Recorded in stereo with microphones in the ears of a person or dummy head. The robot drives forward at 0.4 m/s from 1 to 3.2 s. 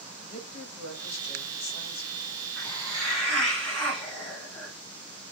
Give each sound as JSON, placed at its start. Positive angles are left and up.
{"t": 0.2, "sound": "a woman speaking", "side_deg": 80, "distance_m": 1.8}
{"t": 2.6, "sound": "a hiss", "side_deg": 10, "distance_m": 1.5}